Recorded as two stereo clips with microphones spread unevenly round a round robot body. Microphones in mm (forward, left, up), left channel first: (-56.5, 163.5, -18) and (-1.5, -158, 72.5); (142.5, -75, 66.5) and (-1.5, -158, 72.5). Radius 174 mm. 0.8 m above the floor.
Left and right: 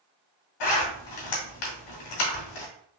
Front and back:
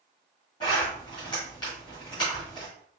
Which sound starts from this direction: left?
A zipper, at 0.6 s.